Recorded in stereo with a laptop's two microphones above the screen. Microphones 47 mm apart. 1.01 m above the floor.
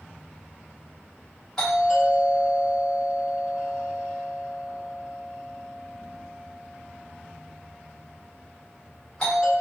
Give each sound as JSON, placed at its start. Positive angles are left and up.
{"t": 1.6, "sound": "a doorbell", "side_deg": 10, "distance_m": 1.7}